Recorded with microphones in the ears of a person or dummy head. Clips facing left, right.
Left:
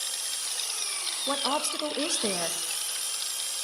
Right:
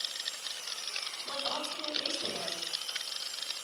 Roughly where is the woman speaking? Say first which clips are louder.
Left 9 dB; left.